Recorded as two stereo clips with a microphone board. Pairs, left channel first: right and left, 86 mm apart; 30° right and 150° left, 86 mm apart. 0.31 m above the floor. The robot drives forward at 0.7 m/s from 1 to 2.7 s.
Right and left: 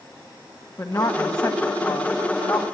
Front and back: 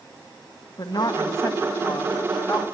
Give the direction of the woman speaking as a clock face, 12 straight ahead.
2 o'clock.